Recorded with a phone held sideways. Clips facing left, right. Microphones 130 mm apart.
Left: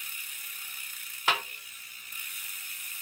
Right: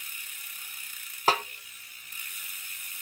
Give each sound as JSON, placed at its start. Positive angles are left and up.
{"t": 1.3, "sound": "a snare drum", "side_deg": -35, "distance_m": 0.8}